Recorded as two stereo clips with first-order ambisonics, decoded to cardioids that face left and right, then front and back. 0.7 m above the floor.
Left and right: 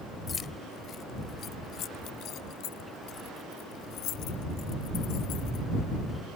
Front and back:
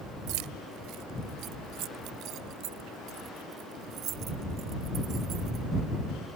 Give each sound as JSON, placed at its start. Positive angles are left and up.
{"t": 0.3, "sound": "keys jangling", "azimuth_deg": 160}